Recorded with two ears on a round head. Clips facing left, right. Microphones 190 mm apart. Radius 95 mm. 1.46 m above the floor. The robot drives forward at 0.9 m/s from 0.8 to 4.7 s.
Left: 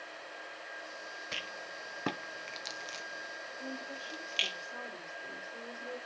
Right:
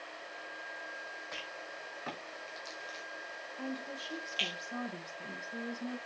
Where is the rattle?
40° left (ahead or behind), 1.5 m; by 4.6 s 30° left (ahead or behind), 2 m.